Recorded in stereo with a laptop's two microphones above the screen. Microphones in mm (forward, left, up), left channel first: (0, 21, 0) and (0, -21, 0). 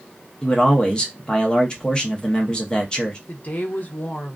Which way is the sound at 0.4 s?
20° left (ahead or behind).